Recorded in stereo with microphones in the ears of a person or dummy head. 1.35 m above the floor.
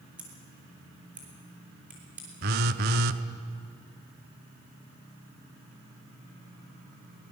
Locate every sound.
0.2 s scissors: 5° right (ahead or behind), 3 m
2.4 s a phone buzzing: 50° right (ahead or behind), 0.7 m